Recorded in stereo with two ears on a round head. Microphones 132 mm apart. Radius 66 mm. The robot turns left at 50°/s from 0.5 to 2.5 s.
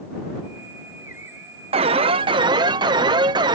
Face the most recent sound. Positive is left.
turn(degrees=-130)